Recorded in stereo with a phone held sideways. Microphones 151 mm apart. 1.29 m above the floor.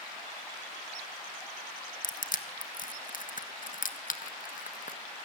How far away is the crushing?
About 1.7 m.